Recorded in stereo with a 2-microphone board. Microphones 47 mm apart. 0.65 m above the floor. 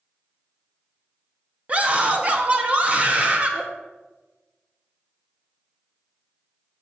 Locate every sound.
1.7 s a scream: 30° right (ahead or behind), 0.5 m